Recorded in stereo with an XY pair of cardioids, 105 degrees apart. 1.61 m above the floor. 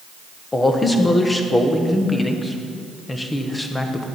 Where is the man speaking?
20° left, 1.1 m.